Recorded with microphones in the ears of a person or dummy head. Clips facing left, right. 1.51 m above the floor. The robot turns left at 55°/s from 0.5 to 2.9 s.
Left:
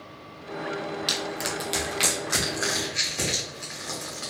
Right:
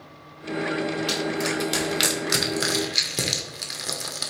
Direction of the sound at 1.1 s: 25° left (ahead or behind).